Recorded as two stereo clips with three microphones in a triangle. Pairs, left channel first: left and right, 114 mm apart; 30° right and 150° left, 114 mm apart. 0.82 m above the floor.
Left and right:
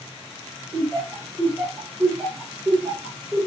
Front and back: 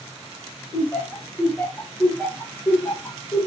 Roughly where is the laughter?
Ahead left.